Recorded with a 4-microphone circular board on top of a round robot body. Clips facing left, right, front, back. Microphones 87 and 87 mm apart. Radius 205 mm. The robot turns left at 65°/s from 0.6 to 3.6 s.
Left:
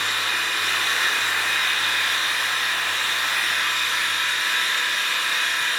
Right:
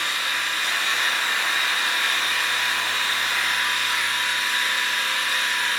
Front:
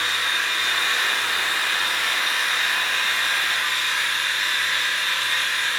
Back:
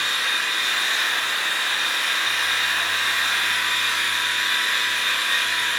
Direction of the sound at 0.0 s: 60° left.